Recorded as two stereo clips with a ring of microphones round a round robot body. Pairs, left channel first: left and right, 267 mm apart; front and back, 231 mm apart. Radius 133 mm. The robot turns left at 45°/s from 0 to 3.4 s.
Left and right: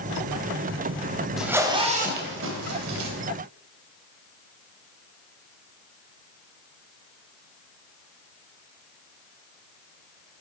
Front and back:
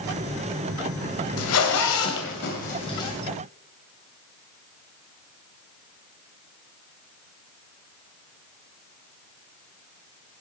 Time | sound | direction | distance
1.4 | a zipper | straight ahead | 2.5 m